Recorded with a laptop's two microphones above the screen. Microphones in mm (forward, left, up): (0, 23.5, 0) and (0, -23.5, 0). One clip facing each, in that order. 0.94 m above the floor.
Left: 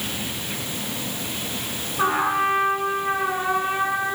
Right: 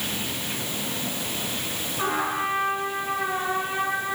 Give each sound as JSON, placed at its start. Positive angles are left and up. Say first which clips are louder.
{"t": 2.0, "sound": "a trumpet", "louder": "left 5 dB", "side_deg": 25, "distance_m": 6.5}